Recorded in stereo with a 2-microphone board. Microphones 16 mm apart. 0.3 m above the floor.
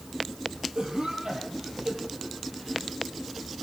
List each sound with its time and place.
0.8 s a cough: 55° right (ahead or behind), 9.5 m